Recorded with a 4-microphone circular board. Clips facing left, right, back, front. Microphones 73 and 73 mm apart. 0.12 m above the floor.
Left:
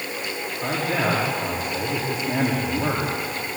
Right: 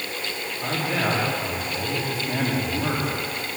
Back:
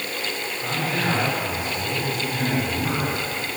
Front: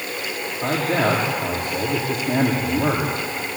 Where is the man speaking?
25° left, 6.5 m.